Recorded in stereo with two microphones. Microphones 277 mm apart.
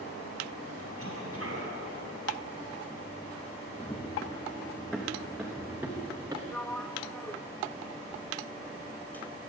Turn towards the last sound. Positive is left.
turn(degrees=5)  # may be behind; listen again after turning